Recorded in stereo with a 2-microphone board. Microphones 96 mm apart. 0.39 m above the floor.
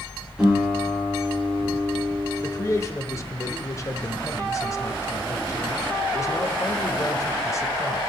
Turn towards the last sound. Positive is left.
turn(degrees=35)  # may be behind; listen again after turning